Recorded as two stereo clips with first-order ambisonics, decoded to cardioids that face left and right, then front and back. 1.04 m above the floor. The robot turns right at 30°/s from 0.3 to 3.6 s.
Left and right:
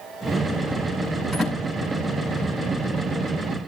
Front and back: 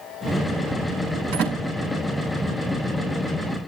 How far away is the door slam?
About 6 m.